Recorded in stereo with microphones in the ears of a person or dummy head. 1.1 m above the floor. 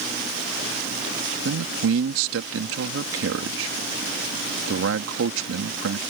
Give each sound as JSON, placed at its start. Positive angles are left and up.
{"t": 1.4, "sound": "a man speaking", "side_deg": -75}